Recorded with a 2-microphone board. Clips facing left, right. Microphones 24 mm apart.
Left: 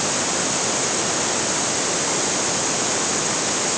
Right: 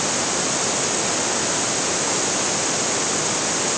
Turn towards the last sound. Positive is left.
No sound to turn to.